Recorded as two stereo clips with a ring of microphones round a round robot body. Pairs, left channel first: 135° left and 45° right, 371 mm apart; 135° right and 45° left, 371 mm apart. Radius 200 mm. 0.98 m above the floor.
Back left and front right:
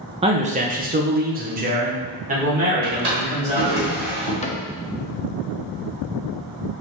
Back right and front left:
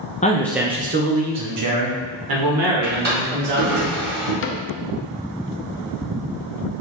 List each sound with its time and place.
0.2 s a man speaking: 95° right, 0.5 m; by 3.8 s 25° left, 2.0 m
2.8 s a drawer: 20° right, 1.9 m
4.4 s a cupboard door: 165° right, 0.6 m